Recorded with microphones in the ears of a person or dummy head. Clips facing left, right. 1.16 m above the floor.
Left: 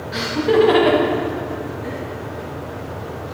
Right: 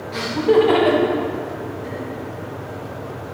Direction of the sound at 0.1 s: 5° left (ahead or behind).